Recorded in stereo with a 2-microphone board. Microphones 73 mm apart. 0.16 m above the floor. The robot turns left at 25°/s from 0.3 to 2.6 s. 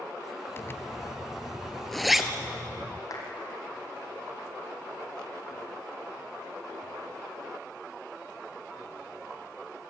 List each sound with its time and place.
0.6 s a zipper: 35° left (ahead or behind), 1.4 m; by 3.0 s 10° right (ahead or behind), 1.4 m
3.1 s a clap: 50° left (ahead or behind), 5 m